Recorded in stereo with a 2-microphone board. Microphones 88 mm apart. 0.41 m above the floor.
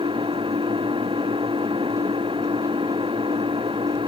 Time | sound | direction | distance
0.0 | an engine running | 80° right | ?